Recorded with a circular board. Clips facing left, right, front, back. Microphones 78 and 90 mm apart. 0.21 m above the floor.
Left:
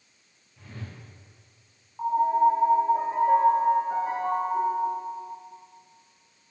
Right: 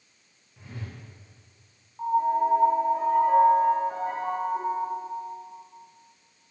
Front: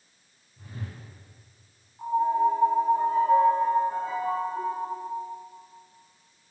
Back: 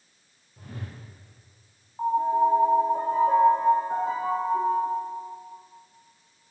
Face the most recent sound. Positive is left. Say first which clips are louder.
# left 2 dB, back 1 dB
turn(degrees=165)